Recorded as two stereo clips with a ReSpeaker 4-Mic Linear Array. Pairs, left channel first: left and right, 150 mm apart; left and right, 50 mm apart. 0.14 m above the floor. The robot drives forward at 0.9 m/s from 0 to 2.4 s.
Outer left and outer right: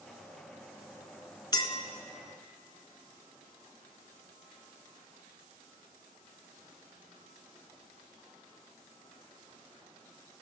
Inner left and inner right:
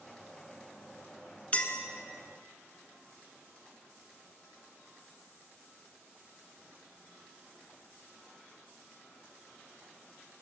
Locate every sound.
1.5 s a clink: 30° left (ahead or behind), 0.9 m; by 1.8 s 35° left (ahead or behind), 0.7 m